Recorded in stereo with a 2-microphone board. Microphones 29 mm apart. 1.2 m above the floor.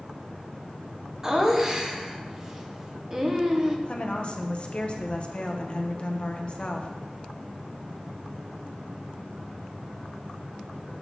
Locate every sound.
1.2 s laughter: 20° right (ahead or behind), 0.8 m
3.9 s a woman speaking: 35° left (ahead or behind), 0.7 m